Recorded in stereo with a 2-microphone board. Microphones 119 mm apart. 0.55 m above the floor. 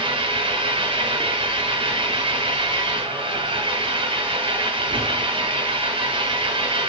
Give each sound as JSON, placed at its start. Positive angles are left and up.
{"t": 0.0, "sound": "an engine running", "side_deg": -50, "distance_m": 4.0}